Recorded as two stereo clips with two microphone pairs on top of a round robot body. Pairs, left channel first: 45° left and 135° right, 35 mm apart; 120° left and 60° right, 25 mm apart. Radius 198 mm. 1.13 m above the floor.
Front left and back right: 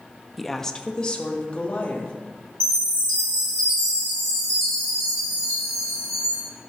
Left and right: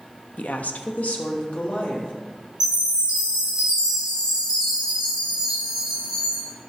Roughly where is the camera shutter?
I don't hear a camera shutter.